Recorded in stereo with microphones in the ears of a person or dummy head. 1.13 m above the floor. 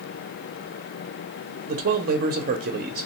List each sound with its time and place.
1.7 s a man speaking: 40° right (ahead or behind), 0.7 m